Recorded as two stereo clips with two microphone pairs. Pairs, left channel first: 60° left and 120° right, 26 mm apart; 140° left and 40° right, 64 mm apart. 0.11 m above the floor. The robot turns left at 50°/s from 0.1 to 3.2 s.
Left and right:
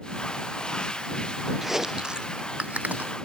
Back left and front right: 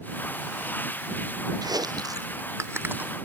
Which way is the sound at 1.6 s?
35° right.